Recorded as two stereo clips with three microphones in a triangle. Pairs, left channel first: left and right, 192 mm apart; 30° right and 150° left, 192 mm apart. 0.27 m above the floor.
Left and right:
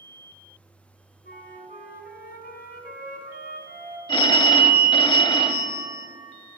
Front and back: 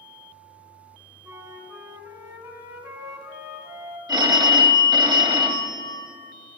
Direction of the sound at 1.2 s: 85° left.